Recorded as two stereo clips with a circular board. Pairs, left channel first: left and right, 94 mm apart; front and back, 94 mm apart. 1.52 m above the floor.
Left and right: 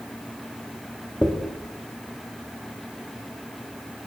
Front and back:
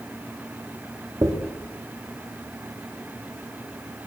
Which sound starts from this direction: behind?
A dropped coin, at 1.2 s.